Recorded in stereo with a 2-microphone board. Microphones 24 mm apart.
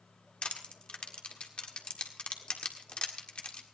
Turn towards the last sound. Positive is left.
turn(degrees=50)  # may be behind; listen again after turning